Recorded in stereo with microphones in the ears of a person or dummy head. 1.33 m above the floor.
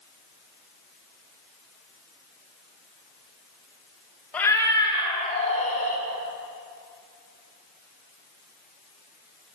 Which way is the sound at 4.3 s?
10° left (ahead or behind).